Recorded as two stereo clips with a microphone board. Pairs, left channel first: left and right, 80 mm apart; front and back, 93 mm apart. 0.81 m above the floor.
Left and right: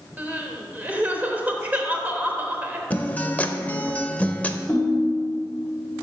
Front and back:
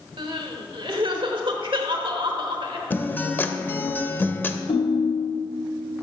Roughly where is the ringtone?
Ahead.